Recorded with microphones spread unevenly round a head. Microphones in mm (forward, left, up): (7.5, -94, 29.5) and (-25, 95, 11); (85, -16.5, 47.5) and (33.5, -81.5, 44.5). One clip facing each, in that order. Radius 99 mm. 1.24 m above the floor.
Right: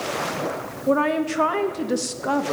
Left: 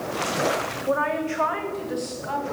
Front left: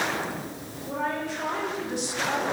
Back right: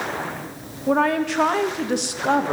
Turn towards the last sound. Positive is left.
turn(degrees=-100)